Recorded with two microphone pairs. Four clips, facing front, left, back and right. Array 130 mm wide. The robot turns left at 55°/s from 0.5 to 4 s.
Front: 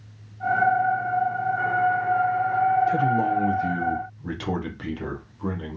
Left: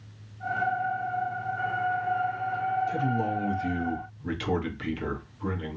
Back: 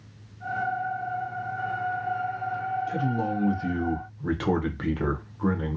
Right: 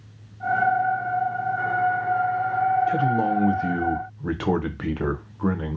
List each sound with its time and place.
2.9 s a man speaking: 50° right, 0.6 m; by 5.8 s 110° right, 0.6 m